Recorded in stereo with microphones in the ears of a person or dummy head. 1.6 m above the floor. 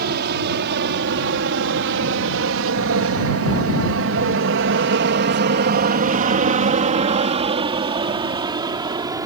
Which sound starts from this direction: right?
An aircraft, at 0.0 s.